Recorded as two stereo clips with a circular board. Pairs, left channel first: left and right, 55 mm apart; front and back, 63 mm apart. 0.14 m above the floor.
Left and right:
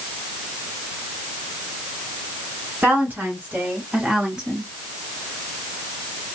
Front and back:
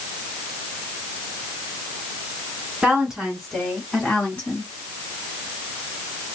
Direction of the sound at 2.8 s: 110° right.